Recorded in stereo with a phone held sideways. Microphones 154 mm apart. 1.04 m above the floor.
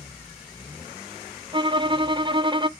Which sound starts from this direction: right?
A violin, at 1.5 s.